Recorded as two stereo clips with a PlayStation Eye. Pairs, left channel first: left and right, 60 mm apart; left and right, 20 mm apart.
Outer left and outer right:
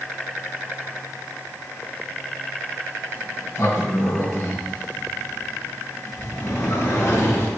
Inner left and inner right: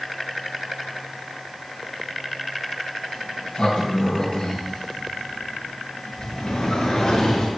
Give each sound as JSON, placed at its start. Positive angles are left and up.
{"t": 3.1, "sound": "a sliding door", "side_deg": 70, "distance_m": 3.5}